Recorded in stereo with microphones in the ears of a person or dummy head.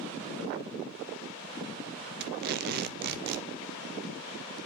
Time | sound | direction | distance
2.2 | tape being pulled | 55° right (ahead or behind) | 0.8 m